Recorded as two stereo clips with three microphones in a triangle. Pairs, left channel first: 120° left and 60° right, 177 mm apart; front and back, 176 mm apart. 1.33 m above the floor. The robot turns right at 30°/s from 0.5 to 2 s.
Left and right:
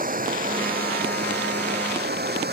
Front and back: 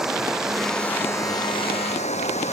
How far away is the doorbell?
I don't hear a doorbell.